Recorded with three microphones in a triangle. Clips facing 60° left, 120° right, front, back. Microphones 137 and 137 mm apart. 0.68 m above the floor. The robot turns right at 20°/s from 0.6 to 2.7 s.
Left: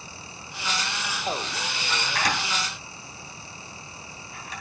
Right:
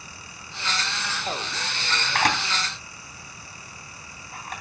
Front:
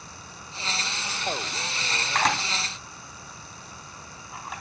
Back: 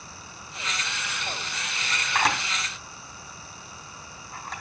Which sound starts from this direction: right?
A camera shutter, at 2.1 s.